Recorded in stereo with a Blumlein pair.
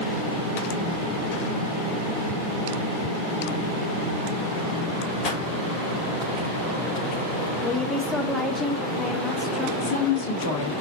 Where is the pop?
30° left, 2.5 m.